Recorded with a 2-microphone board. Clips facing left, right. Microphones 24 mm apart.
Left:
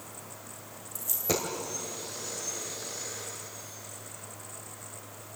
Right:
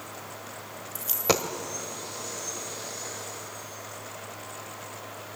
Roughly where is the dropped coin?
Right.